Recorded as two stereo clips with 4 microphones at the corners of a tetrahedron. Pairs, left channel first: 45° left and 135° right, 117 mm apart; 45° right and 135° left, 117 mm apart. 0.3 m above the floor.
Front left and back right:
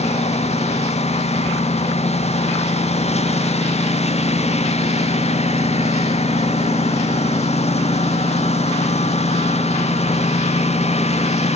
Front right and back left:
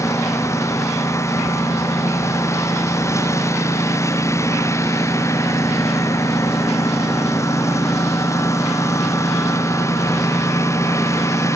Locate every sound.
0.0 s a lawn mower: 20° left